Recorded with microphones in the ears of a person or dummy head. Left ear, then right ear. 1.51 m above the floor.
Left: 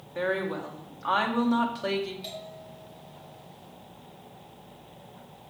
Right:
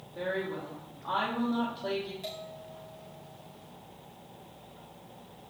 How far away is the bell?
About 3 m.